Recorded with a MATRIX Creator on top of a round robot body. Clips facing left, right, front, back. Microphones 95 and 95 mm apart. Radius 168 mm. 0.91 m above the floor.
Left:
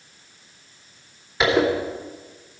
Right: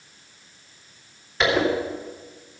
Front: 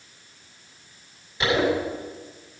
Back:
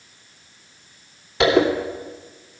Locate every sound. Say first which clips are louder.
1.4 s a zipper: left 2 dB, back 6 dB; 175° left, 2.5 m